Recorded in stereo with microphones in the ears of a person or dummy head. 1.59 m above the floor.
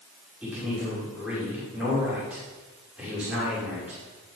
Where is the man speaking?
10° right (ahead or behind), 5.5 m.